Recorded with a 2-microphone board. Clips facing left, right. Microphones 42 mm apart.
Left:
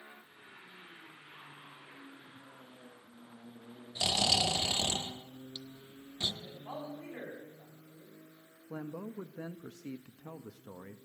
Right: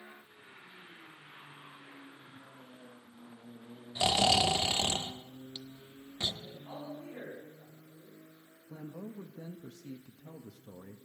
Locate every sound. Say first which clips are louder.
4.0 s snoring: right 4 dB; 25° right (ahead or behind), 1.0 m
6.4 s a man speaking: left 1 dB; 80° left, 7.5 m
8.7 s a man speaking: left 3 dB; 60° left (ahead or behind), 0.5 m